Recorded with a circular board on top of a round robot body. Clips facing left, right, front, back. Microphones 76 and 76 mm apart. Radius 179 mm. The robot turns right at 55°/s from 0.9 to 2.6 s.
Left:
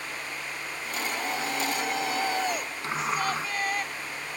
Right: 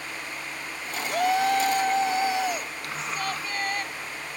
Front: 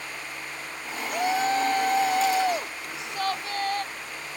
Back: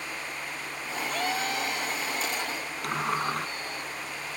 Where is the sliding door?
155° left.